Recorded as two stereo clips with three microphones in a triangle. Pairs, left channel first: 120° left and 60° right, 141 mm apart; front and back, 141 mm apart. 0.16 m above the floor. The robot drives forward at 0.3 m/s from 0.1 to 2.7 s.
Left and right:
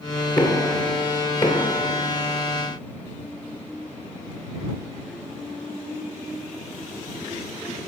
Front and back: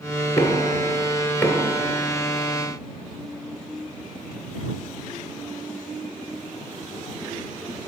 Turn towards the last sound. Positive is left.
turn(degrees=90)